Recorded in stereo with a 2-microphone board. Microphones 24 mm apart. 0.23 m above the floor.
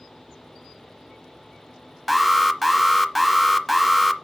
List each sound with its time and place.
2.1 s an alarm: 5° right (ahead or behind), 0.8 m